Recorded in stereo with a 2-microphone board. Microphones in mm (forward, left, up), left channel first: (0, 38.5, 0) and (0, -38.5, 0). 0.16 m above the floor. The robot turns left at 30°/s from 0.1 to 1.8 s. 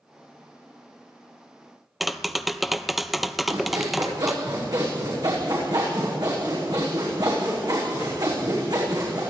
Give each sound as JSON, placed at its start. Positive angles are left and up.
{"t": 2.0, "sound": "tapping", "side_deg": 0, "distance_m": 0.6}
{"t": 3.5, "sound": "sawing", "side_deg": -55, "distance_m": 6.5}